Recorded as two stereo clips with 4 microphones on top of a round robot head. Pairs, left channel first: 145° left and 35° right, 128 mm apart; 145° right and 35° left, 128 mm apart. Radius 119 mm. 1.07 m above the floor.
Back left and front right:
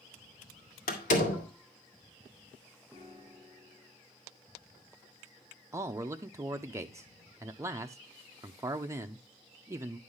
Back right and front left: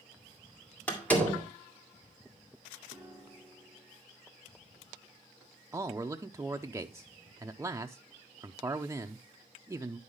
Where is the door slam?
135° left, 2 m.